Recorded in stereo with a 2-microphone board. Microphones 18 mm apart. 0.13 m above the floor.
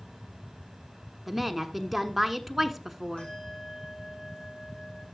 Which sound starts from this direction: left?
A bell, at 3.2 s.